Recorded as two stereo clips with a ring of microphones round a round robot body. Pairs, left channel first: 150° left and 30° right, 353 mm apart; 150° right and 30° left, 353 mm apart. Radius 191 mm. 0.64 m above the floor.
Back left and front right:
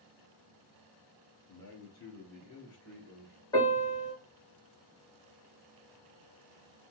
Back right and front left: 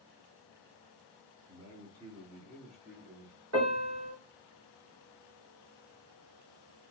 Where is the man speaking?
110° left, 1.5 m; by 3.3 s 100° left, 2.5 m.